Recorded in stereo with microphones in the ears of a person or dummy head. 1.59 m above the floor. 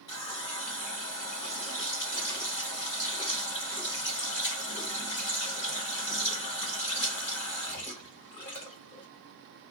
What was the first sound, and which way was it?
A running tap, 35° left (ahead or behind).